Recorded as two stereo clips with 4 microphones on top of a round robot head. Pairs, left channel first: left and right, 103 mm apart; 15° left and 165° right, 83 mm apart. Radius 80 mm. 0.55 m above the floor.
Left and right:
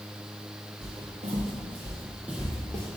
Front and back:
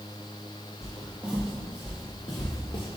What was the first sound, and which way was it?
Footsteps, 100° right.